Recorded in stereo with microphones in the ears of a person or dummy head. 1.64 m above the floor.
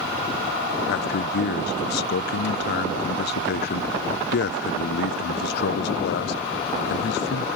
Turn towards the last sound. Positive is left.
turn(degrees=65)  # may be behind; listen again after turning